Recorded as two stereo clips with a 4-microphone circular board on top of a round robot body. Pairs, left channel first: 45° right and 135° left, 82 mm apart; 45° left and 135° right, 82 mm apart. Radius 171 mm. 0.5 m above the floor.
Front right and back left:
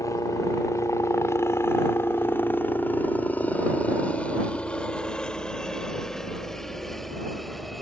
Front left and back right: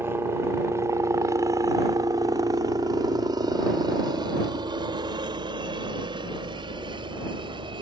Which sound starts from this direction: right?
A helicopter, at 0.0 s.